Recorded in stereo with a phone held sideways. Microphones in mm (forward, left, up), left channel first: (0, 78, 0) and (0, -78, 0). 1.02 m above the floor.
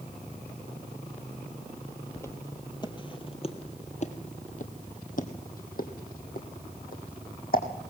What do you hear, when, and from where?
2.2 s footsteps: 15° left (ahead or behind), 1.6 m; by 7.6 s 65° left (ahead or behind), 3 m